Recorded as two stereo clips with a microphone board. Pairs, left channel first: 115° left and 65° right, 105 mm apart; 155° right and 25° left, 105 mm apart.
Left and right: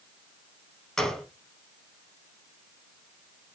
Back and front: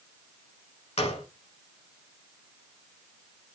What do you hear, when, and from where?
1.0 s a gunshot: 160° right, 0.7 m